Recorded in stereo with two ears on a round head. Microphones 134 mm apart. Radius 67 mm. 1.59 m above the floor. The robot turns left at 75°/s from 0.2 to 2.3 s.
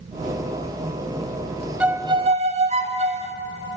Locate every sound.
1.8 s a violin: 10° right, 0.5 m; by 3.4 s 45° right, 0.5 m